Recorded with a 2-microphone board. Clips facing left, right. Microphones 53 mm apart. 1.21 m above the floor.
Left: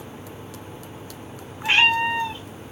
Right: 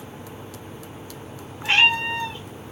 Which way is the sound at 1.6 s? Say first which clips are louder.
Left 1 dB; 10° left (ahead or behind).